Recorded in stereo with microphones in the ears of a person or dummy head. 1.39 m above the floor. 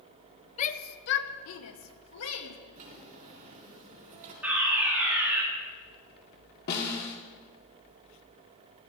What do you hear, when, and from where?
0.6 s a shout: 35° left (ahead or behind), 0.9 m; by 2.6 s 80° left, 2 m
2.8 s a drawer: 40° right (ahead or behind), 3.5 m
4.4 s a fire alarm: 10° right (ahead or behind), 4.5 m
6.7 s a snare drum: 50° left (ahead or behind), 2 m